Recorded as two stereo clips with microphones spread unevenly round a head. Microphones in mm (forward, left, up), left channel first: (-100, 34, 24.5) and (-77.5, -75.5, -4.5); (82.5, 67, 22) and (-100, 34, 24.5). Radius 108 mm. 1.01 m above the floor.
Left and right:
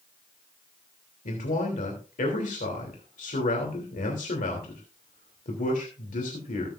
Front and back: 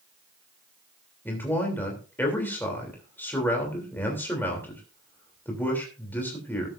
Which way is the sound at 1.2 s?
90° left.